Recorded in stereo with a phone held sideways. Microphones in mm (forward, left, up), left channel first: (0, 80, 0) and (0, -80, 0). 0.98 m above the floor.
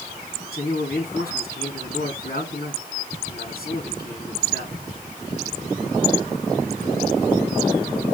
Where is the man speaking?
70° left (ahead or behind), 7 m.